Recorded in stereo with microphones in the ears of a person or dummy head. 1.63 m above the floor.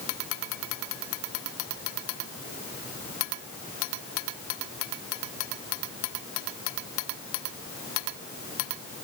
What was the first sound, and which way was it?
Only background noise.